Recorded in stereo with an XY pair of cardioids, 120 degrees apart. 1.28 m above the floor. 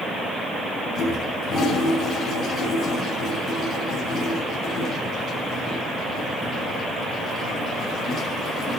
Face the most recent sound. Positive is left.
turn(degrees=60)